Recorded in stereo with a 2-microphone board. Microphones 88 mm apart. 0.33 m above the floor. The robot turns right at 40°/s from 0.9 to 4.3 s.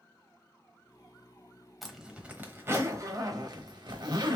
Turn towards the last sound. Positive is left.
turn(degrees=-50)  # may be behind; listen again after turning